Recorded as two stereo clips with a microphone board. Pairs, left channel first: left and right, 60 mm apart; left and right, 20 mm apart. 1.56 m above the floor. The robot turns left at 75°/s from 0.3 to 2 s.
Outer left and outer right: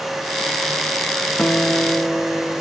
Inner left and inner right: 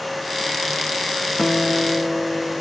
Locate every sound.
1.4 s a guitar: 30° left, 1.2 m; by 2.6 s 15° right, 1.2 m